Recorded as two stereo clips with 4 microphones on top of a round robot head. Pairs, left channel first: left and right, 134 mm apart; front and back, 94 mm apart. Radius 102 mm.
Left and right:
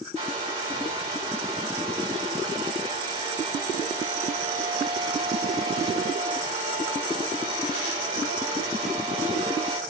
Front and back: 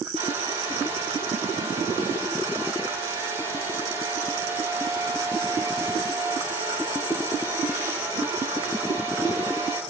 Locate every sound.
0.1 s a hair dryer: 140° right, 9 m